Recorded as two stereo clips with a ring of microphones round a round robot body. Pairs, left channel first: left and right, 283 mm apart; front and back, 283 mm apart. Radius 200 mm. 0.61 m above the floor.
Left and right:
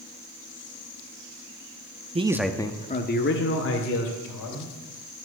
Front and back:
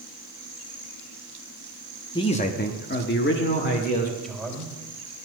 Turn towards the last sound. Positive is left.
turn(degrees=90)